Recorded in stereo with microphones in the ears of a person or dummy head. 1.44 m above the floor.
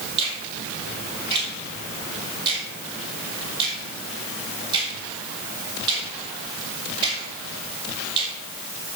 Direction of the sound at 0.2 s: 25° right (ahead or behind).